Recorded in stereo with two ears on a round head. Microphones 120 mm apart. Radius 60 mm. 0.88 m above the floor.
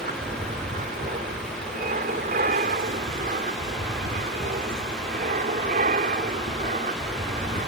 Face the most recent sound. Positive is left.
turn(degrees=-55)  # may be behind; listen again after turning